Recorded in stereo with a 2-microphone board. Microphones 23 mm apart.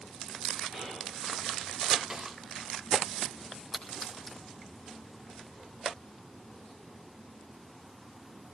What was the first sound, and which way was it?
Whispering, centre (ahead or behind).